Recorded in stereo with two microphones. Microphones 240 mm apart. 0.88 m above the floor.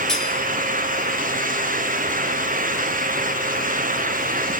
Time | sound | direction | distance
0.1 | cutlery clinking | centre (ahead or behind) | 8 m